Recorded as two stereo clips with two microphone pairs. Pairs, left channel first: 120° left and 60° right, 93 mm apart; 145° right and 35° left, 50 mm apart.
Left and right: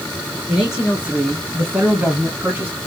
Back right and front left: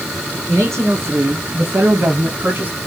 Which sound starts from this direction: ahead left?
A man speaking, at 0.5 s.